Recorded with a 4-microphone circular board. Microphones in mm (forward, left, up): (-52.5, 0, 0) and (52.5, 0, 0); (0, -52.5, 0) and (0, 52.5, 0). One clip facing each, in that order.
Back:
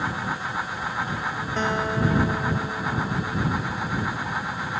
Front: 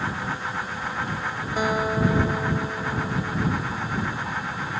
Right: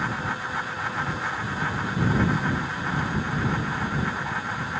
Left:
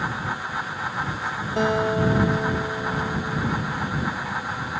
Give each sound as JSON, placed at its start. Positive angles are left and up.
{"t": 1.6, "sound": "a guitar", "azimuth_deg": 80}